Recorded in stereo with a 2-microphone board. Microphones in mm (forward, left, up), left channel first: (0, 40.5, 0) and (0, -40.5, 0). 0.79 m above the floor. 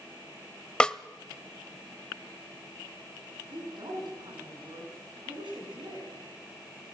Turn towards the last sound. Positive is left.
turn(degrees=-75)  # may be behind; listen again after turning